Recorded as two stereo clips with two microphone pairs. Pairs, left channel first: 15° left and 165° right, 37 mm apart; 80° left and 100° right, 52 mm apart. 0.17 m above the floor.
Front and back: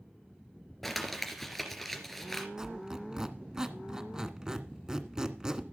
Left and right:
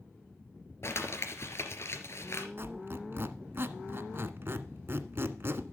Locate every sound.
0.8 s crumpling: 100° left, 3 m
2.6 s a squeak: 105° right, 1.4 m